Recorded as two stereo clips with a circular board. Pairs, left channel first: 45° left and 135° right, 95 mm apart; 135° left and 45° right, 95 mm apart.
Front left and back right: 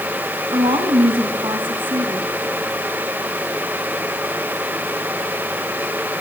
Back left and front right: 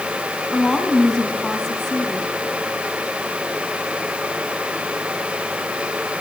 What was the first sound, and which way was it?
A woman speaking, 140° right.